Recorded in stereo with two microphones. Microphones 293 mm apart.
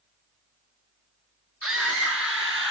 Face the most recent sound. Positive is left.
turn(degrees=-40)  # may be behind; listen again after turning